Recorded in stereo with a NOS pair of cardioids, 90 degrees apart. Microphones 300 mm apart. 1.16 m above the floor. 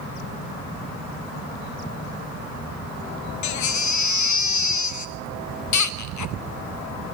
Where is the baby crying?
70° left, 1.1 m.